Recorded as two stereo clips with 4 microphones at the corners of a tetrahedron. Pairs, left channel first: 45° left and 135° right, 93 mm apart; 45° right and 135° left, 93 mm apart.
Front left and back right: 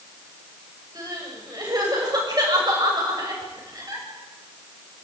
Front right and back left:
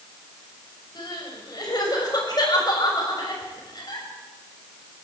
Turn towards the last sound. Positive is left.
turn(degrees=-90)